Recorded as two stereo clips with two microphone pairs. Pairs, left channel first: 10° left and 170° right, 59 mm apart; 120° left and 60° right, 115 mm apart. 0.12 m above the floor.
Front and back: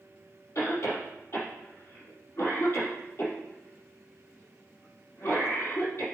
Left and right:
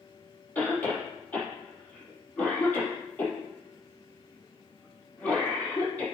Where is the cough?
45° left, 4.5 m.